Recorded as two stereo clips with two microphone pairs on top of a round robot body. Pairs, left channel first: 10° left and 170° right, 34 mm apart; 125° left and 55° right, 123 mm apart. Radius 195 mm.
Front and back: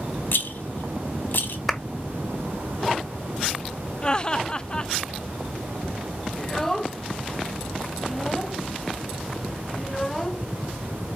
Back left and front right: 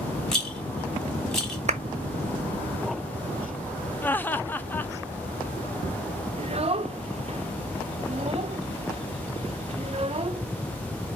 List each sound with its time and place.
0.3 s a rattle: 40° left, 1.0 m
1.7 s a clap: 80° right, 1.1 m
4.0 s laughter: 60° left, 0.7 m
6.4 s a child speaking: 65° right, 0.8 m